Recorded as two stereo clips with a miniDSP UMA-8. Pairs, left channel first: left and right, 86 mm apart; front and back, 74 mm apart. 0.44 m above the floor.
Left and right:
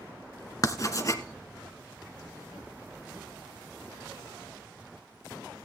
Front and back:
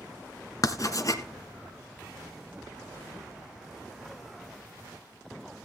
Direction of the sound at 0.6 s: 40° left.